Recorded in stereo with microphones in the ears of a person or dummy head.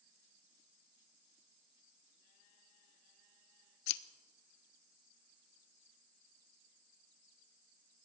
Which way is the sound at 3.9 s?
65° left (ahead or behind).